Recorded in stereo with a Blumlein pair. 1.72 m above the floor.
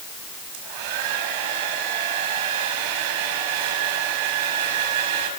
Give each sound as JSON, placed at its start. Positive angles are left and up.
{"t": 0.5, "sound": "a hair dryer", "azimuth_deg": -50, "distance_m": 6.0}